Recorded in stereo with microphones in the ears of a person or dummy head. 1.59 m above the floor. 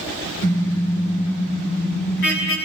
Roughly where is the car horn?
Left.